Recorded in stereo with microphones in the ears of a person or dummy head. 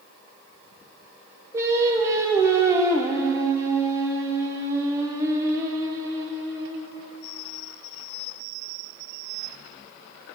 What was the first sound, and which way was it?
Singing, 15° right (ahead or behind).